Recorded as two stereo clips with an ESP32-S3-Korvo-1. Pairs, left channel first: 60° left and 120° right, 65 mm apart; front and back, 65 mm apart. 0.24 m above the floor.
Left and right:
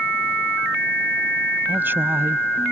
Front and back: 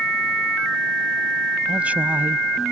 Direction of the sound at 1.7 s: 130° right.